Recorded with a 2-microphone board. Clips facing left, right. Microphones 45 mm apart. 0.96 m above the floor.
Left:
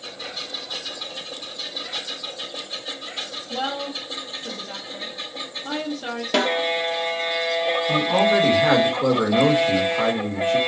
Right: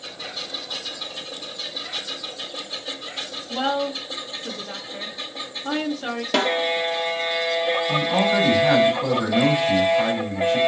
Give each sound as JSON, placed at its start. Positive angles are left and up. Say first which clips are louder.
{"t": 3.5, "sound": "a woman speaking", "louder": "right 4 dB", "side_deg": -5, "distance_m": 1.1}
{"t": 6.3, "sound": "a snare drum", "louder": "even", "side_deg": 5, "distance_m": 1.2}
{"t": 7.9, "sound": "a man speaking", "louder": "left 4 dB", "side_deg": 50, "distance_m": 2.5}